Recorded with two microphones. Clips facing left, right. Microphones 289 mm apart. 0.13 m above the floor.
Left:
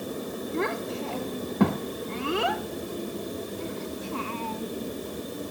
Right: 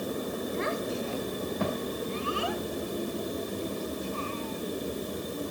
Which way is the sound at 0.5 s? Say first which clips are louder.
Left 5 dB; 70° left (ahead or behind).